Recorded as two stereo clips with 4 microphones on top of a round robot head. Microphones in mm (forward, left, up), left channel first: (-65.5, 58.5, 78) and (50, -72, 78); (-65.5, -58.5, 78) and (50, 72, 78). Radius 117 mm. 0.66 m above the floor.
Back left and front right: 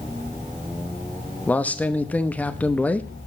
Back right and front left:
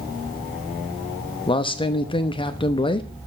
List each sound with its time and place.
1.5 s a man speaking: 155° right, 0.9 m